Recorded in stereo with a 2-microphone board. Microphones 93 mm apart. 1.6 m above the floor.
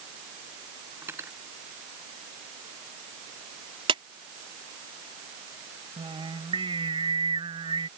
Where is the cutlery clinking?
30° right (ahead or behind).